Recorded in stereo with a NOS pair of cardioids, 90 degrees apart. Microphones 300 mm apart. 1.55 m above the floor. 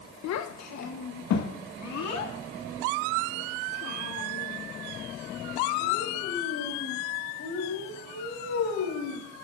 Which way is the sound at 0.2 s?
65° left.